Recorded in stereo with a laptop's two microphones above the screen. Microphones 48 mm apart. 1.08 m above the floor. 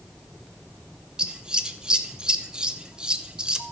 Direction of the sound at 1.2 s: 20° right (ahead or behind).